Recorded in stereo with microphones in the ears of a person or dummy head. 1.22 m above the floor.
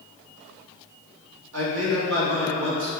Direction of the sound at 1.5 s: 75° right (ahead or behind).